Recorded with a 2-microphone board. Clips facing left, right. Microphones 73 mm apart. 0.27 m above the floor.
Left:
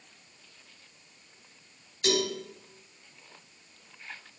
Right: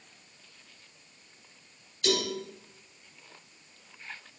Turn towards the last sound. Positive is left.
turn(degrees=25)  # may be behind; listen again after turning